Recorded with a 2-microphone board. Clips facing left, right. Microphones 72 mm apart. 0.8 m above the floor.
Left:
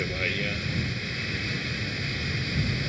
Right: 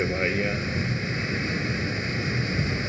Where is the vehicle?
25° right (ahead or behind).